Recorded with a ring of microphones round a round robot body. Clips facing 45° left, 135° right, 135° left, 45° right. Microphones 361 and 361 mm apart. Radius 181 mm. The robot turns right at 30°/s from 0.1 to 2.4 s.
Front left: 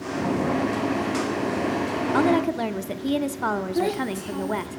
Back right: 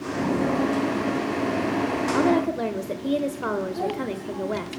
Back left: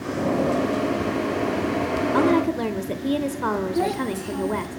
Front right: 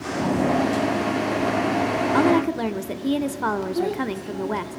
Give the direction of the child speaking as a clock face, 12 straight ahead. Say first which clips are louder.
Front left 3 dB, even; 10 o'clock.